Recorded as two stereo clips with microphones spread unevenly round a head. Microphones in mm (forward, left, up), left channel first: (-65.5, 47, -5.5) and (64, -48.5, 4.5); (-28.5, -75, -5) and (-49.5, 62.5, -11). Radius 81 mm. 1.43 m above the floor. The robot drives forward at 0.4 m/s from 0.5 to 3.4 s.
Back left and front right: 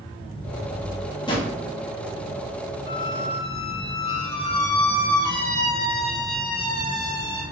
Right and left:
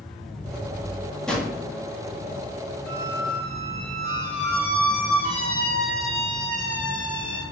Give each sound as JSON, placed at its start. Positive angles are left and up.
{"t": 1.3, "sound": "a drawer", "azimuth_deg": -160, "distance_m": 1.0}
{"t": 2.9, "sound": "a squeak", "azimuth_deg": -160, "distance_m": 2.0}